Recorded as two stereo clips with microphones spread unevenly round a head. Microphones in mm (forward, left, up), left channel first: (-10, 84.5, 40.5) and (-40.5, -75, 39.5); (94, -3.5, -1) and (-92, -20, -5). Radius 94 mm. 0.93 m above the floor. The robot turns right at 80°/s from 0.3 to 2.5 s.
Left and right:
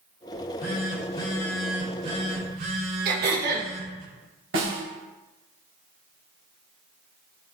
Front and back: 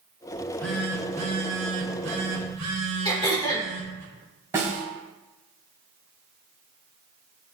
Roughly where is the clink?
No clink in this recording.